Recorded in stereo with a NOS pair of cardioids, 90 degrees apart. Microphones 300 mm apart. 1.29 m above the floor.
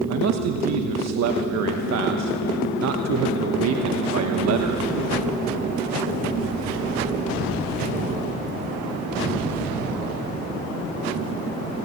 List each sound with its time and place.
0.1 s a man speaking: 60° right, 1.2 m